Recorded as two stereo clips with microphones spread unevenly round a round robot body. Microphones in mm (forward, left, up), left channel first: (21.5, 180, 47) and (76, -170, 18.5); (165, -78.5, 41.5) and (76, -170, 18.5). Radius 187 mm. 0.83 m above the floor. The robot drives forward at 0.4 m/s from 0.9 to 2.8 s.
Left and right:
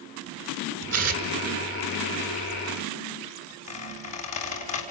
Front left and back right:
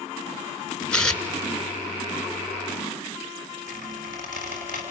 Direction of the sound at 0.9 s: 30° right.